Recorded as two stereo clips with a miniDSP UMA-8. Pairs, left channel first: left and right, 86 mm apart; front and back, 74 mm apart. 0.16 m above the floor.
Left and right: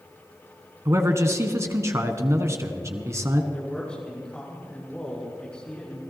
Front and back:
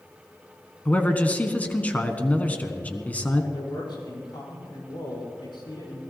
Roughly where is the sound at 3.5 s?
Ahead.